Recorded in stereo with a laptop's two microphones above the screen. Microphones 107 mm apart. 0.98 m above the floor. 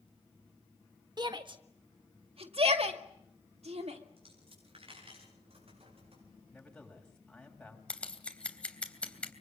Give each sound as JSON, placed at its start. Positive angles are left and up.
{"t": 1.2, "sound": "a shout", "side_deg": -40, "distance_m": 1.5}
{"t": 4.2, "sound": "a dropped coin", "side_deg": -60, "distance_m": 9.5}
{"t": 6.5, "sound": "a man speaking", "side_deg": 5, "distance_m": 7.5}
{"t": 7.9, "sound": "scissors", "side_deg": 10, "distance_m": 3.0}